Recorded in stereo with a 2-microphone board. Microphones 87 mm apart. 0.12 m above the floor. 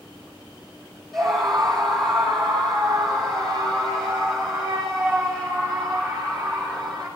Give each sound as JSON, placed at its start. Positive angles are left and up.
{"t": 1.1, "sound": "a scream", "side_deg": 5, "distance_m": 4.0}